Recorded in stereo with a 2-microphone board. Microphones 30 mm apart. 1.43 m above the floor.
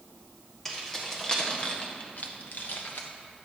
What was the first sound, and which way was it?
Keys jangling, 10° left (ahead or behind).